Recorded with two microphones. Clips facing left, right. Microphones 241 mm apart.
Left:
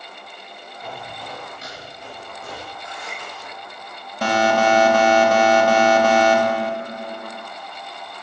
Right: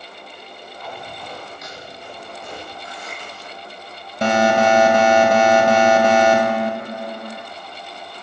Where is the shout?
No shout in this recording.